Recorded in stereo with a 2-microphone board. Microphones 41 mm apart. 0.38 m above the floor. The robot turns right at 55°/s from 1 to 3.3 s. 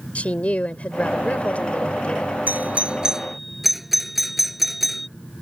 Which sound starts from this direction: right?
A doorbell, at 2.5 s.